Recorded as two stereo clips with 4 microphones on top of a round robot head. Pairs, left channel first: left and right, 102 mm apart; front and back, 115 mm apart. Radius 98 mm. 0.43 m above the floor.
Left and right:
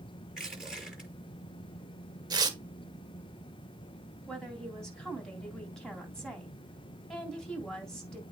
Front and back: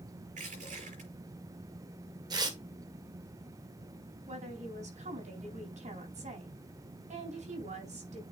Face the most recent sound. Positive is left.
turn(degrees=175)